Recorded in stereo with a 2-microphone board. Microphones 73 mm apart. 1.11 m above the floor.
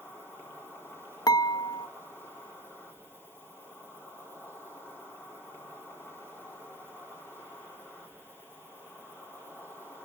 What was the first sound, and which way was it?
An insect, 30° left (ahead or behind).